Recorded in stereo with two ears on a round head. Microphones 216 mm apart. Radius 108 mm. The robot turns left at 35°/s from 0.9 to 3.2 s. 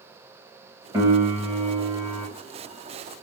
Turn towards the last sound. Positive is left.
turn(degrees=120)